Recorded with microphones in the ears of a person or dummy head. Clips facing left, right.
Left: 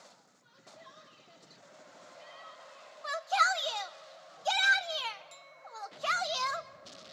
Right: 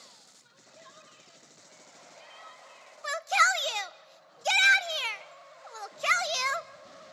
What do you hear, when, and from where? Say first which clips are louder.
0.4 s a shout: left 1 dB; 35° right (ahead or behind), 8 m
3.0 s a shout: right 2 dB; 30° right (ahead or behind), 0.8 m